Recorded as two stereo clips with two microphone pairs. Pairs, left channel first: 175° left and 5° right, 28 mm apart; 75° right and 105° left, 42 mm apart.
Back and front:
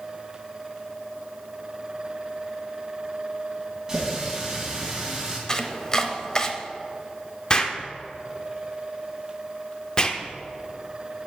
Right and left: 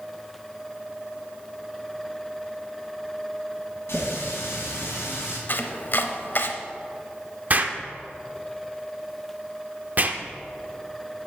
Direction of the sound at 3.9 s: 70° right.